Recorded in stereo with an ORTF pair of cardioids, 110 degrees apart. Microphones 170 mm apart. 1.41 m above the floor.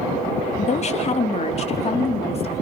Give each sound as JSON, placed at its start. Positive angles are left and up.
{"t": 0.6, "sound": "a woman speaking", "azimuth_deg": 40, "distance_m": 2.5}